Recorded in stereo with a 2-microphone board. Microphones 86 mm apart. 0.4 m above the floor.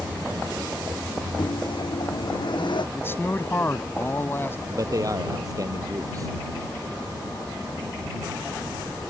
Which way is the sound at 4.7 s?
40° right (ahead or behind).